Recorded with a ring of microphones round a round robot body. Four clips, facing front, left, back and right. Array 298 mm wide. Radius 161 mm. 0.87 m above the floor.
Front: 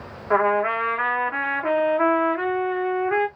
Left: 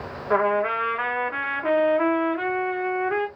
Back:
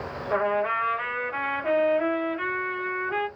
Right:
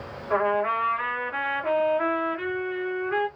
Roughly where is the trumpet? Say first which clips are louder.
Left 2 dB, front 5 dB; ahead left.